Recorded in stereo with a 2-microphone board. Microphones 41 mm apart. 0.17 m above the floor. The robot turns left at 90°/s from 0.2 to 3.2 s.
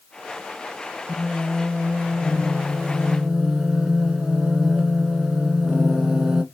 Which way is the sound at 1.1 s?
175° left.